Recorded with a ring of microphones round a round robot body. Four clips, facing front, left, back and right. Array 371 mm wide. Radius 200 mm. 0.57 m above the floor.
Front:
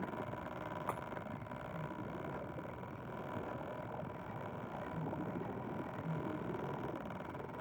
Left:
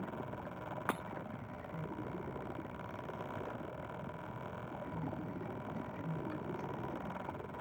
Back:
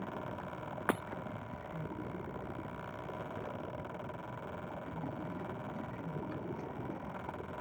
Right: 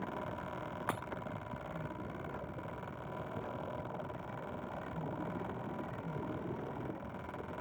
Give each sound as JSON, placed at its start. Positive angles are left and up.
{"t": 0.9, "sound": "breaking glass", "azimuth_deg": 175}